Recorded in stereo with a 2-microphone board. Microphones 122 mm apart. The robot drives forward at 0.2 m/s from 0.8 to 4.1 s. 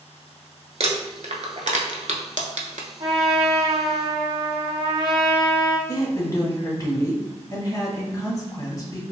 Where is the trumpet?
55° right (ahead or behind), 0.7 m; by 5.8 s 45° right (ahead or behind), 0.9 m.